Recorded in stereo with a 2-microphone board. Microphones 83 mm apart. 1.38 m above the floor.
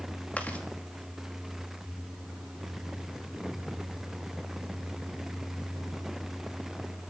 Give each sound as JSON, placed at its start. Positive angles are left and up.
{"t": 0.4, "sound": "chewing", "side_deg": 20, "distance_m": 2.5}